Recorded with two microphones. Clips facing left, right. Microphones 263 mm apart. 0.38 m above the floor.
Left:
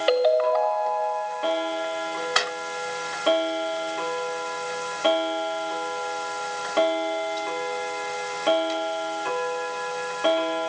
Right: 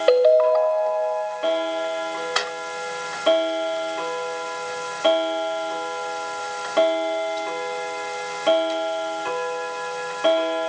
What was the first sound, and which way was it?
A ringtone, 50° right (ahead or behind).